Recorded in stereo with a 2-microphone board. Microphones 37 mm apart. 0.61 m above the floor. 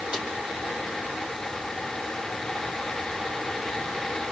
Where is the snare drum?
40° right (ahead or behind), 5.5 m.